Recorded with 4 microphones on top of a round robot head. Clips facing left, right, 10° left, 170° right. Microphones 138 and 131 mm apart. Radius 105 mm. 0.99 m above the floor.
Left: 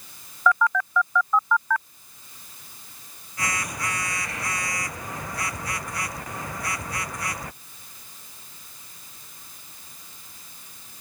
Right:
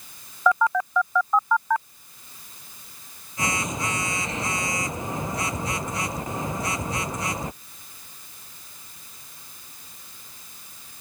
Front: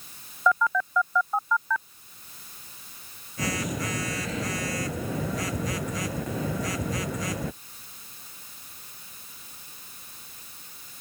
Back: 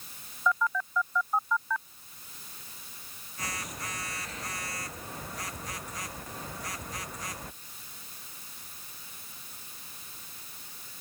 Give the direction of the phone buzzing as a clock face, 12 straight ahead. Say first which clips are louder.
Right 1 dB, front 5 dB; 1 o'clock.